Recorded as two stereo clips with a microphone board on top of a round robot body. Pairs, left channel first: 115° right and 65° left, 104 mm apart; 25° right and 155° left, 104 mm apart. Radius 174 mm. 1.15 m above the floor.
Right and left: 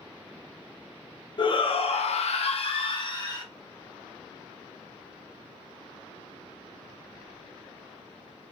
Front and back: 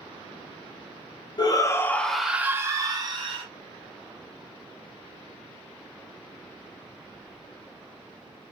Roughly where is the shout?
Right.